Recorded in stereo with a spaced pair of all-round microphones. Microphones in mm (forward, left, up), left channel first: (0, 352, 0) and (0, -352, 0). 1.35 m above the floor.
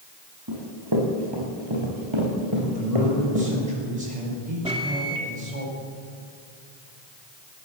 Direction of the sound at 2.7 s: 75° right (ahead or behind).